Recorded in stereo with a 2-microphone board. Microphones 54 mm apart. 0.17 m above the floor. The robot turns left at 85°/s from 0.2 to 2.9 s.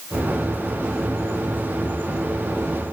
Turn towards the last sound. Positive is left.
No sound to turn to.